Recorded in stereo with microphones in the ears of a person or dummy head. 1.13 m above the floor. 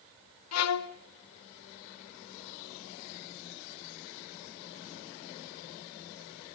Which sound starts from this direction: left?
A violin, at 0.5 s.